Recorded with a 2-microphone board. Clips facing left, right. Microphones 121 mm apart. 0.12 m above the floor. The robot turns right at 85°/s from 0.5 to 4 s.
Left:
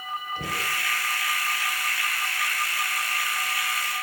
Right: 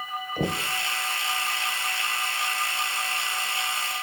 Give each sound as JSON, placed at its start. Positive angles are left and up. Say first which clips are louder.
{"t": 0.4, "sound": "knocking", "louder": "right 9 dB", "side_deg": -50, "distance_m": 1.9}